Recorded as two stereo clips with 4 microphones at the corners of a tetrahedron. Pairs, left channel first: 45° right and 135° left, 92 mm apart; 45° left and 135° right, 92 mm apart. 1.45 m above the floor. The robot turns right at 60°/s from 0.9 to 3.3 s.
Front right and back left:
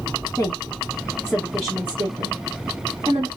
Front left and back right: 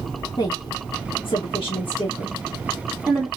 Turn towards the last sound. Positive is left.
turn(degrees=165)